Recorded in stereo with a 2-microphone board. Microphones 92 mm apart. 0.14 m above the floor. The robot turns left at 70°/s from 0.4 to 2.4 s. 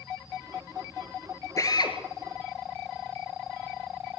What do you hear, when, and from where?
1.6 s a drill: 35° left (ahead or behind), 2.5 m; by 2.0 s 55° left (ahead or behind), 2.5 m